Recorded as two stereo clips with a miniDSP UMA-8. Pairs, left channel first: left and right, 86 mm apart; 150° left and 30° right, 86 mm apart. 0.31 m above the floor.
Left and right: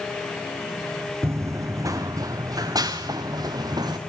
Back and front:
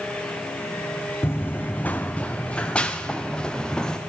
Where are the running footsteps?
150° right, 1.2 m; by 4.0 s 130° right, 3.5 m.